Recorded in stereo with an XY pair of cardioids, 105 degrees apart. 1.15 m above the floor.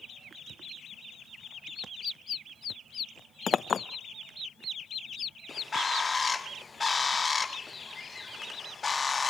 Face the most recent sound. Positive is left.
turn(degrees=30)